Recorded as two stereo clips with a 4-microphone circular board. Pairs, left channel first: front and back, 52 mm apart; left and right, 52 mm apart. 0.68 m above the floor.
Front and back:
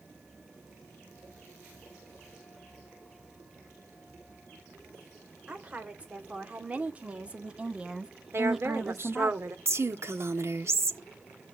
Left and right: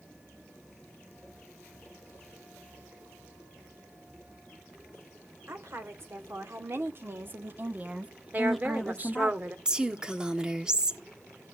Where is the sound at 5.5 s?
115° right, 3 m; by 9.3 s 70° left, 1.1 m.